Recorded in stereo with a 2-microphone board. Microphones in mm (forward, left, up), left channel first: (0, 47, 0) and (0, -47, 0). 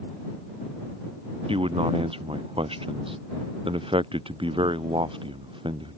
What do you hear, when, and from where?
1.5 s a man speaking: 80° right; by 6.0 s 65° right (ahead or behind)